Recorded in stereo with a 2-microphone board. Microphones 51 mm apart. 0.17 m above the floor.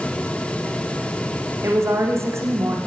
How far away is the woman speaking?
About 9.5 m.